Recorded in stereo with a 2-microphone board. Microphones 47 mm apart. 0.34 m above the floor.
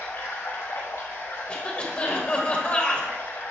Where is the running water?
85° left, 2 m.